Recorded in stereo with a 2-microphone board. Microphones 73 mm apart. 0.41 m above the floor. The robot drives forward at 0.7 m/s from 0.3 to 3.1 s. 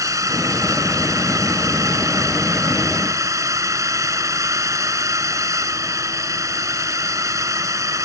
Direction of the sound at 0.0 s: 45° right (ahead or behind).